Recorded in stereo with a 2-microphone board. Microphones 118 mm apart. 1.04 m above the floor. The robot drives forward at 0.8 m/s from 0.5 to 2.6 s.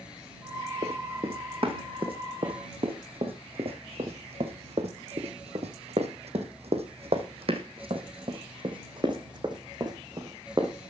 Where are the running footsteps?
55° right (ahead or behind), 2.5 m; by 10.9 s 30° right (ahead or behind), 3.5 m.